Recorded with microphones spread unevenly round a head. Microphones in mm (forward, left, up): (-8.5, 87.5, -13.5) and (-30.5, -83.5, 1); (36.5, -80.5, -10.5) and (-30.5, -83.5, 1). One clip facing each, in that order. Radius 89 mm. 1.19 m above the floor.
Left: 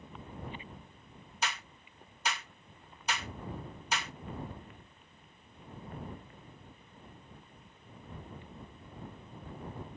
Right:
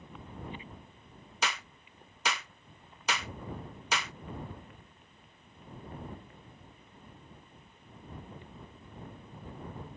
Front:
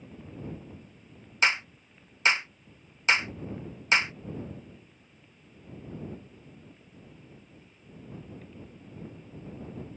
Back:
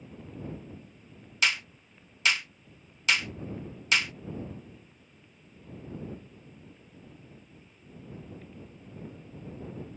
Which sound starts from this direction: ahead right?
A clap, at 1.4 s.